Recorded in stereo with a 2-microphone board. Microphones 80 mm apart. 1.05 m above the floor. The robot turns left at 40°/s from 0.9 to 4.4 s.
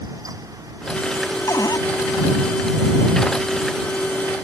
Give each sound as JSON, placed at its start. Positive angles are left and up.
{"t": 1.5, "sound": "a cupboard door", "side_deg": 45}